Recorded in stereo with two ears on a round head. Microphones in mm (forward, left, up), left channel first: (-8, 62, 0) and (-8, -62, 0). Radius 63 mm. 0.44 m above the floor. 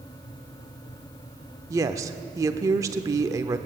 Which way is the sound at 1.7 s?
25° right (ahead or behind).